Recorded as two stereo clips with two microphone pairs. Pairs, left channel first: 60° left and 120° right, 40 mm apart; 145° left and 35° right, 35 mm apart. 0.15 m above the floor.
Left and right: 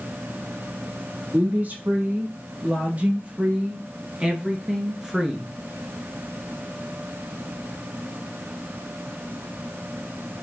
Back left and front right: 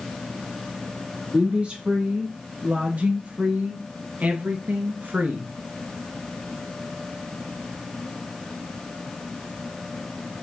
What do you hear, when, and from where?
1.3 s a woman speaking: 90° right, 3.5 m; by 5.5 s 35° right, 2 m